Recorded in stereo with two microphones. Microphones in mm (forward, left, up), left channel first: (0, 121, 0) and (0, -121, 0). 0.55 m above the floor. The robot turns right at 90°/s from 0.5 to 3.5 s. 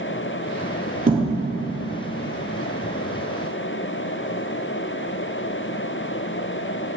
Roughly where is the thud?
Right.